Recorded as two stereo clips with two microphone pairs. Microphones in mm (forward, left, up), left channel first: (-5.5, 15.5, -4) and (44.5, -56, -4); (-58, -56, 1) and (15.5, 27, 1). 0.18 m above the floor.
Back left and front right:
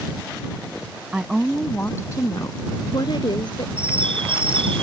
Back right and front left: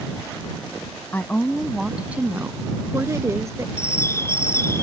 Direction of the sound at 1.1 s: 95° right.